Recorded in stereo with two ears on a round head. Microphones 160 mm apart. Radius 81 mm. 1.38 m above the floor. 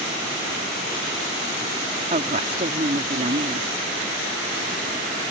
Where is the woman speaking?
40° right (ahead or behind).